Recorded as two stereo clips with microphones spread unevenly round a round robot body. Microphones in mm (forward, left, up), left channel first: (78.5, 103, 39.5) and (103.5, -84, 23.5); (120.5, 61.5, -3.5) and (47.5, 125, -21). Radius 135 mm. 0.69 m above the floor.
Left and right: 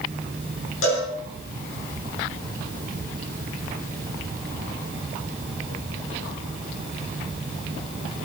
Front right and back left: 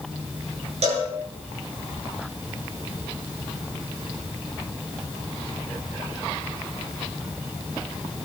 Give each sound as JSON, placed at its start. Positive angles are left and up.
{"t": 0.8, "sound": "a cowbell", "azimuth_deg": 145, "distance_m": 7.0}